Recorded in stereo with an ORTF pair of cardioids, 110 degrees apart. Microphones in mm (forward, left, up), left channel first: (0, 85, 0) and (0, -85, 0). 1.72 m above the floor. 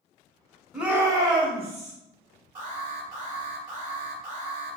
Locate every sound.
0.7 s a shout: 5° right, 1.0 m; by 1.9 s 40° right, 1.4 m
2.5 s an alarm: 45° right, 1.6 m